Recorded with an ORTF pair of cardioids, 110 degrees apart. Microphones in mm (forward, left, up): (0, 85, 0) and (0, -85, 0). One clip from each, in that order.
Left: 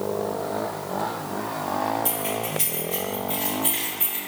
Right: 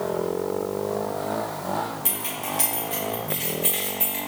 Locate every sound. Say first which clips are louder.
2.0 s keys jangling: left 3 dB; 20° right, 1.3 m; by 4.2 s 15° right, 2.5 m